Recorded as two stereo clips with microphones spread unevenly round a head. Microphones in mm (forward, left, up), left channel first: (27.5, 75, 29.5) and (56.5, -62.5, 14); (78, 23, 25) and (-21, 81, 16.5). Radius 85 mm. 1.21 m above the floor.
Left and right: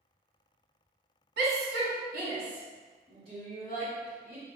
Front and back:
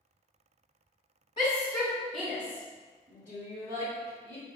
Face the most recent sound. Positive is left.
turn(degrees=-150)